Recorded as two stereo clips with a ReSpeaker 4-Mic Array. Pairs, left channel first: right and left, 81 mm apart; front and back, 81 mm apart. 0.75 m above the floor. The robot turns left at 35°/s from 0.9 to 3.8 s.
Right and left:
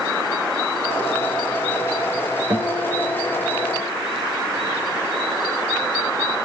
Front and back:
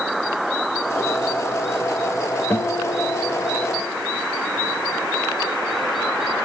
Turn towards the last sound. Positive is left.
turn(degrees=15)